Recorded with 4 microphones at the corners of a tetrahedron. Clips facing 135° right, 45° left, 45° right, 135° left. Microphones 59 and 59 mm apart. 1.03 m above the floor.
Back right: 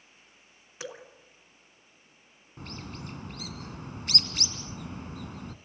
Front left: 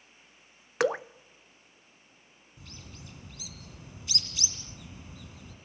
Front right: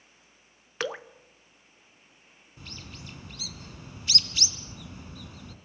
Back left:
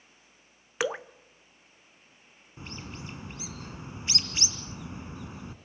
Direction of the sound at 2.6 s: 165° right.